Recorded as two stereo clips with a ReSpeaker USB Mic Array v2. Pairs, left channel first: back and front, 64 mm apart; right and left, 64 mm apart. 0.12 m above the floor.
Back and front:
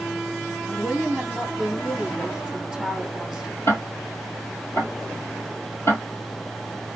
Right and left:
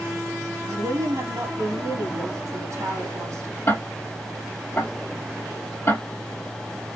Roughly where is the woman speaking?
Left.